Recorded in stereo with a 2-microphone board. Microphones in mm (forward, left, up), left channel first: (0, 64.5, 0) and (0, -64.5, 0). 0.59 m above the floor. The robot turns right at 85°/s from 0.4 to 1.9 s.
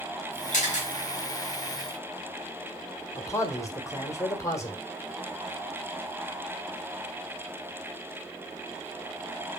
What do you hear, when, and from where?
0.5 s a camera shutter: 75° left (ahead or behind), 3 m; by 0.9 s 55° left (ahead or behind), 3 m
3.1 s a man speaking: 25° left (ahead or behind), 1.7 m